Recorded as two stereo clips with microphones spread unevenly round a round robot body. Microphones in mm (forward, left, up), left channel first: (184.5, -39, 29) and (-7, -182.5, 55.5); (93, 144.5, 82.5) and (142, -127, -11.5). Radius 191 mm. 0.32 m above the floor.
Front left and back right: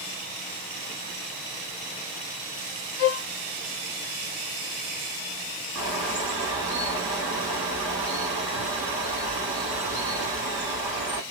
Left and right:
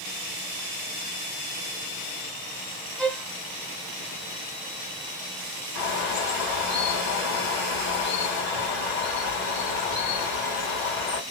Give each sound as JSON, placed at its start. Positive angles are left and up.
{"t": 3.0, "sound": "a violin", "azimuth_deg": 10, "distance_m": 0.9}
{"t": 5.8, "sound": "a bird", "azimuth_deg": 130, "distance_m": 1.8}